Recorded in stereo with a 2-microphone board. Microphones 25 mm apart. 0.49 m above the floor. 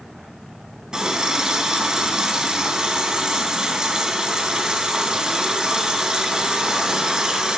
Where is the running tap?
30° right (ahead or behind), 2.5 m.